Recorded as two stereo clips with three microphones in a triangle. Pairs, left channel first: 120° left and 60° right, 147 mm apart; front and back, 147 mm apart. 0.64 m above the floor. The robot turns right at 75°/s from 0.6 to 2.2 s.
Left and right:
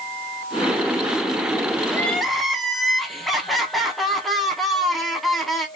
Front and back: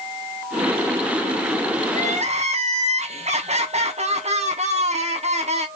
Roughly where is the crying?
Behind.